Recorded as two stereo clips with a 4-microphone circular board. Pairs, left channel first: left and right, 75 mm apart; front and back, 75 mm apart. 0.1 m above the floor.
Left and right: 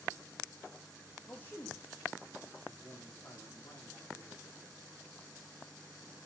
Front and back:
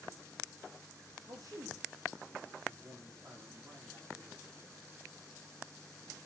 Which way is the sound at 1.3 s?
155° left.